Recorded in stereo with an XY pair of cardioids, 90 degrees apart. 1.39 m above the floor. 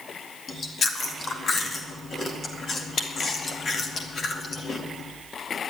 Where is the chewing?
45° left, 2 m.